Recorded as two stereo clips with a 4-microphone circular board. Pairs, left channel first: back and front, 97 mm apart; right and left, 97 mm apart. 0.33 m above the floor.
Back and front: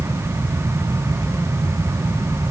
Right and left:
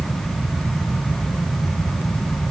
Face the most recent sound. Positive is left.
No sound to turn to.